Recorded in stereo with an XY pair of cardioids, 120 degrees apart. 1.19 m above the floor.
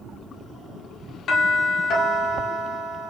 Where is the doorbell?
55° left, 1.6 m.